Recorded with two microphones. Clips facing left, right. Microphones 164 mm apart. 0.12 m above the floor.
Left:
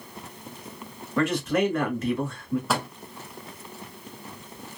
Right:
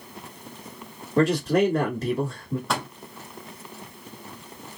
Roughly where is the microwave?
Centre.